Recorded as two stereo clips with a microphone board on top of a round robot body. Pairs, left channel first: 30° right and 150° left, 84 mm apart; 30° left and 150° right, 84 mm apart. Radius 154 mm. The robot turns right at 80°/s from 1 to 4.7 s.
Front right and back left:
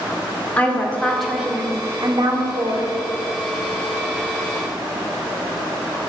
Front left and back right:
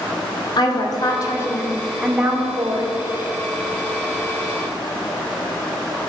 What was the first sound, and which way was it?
A woman speaking, 40° left.